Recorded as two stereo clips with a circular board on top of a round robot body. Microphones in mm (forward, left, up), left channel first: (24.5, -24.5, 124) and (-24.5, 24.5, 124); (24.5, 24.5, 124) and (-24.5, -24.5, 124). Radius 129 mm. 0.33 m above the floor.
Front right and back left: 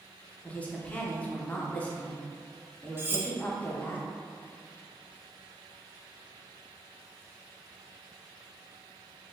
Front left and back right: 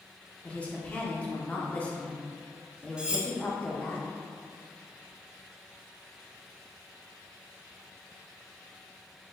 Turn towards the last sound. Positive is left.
turn(degrees=160)